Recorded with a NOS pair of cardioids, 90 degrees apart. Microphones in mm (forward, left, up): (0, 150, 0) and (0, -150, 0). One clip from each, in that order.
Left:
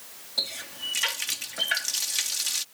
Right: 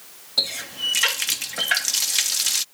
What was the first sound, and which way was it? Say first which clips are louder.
A running tap: right 7 dB; 40° right.